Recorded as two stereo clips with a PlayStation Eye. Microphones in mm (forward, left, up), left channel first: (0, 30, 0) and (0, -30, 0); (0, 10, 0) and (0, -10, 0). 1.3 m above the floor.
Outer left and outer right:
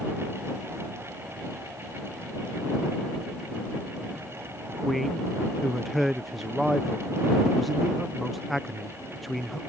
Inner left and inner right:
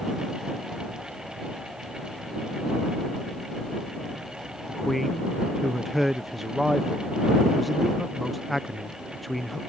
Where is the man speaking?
Centre (ahead or behind).